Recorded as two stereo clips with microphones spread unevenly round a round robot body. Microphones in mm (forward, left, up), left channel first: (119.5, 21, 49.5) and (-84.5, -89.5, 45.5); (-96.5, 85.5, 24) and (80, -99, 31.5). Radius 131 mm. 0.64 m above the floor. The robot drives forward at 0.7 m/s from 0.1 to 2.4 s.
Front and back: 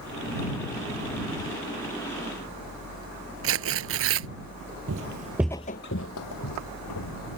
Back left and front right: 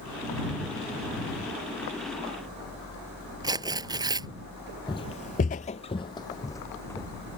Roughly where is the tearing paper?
Behind right.